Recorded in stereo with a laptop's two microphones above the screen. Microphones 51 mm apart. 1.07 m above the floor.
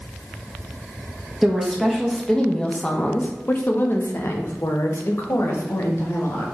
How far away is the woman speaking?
About 1.6 m.